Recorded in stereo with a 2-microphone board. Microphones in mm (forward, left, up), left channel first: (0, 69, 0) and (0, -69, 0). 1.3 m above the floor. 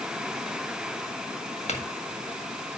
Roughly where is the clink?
Left.